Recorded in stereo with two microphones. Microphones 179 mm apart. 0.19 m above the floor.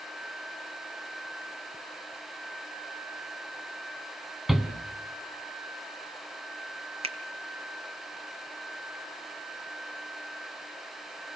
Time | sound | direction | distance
4.5 | a shout | centre (ahead or behind) | 2 m
7.0 | a finger snap | 35° right (ahead or behind) | 1.7 m